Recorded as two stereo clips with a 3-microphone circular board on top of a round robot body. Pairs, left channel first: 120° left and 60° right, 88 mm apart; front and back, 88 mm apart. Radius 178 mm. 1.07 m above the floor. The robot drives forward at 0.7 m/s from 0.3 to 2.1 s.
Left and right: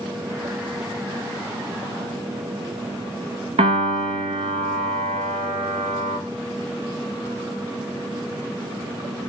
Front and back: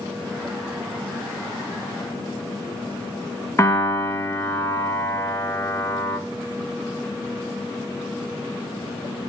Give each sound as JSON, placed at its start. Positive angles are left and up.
{"t": 3.6, "sound": "a piano", "azimuth_deg": -65, "distance_m": 1.0}